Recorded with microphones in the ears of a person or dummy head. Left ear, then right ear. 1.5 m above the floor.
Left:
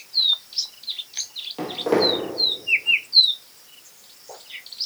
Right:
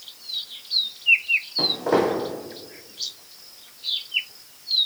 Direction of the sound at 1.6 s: 25° left (ahead or behind).